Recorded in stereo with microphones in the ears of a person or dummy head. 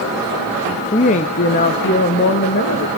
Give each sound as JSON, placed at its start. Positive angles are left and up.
{"t": 0.9, "sound": "a woman speaking", "side_deg": 25, "distance_m": 0.8}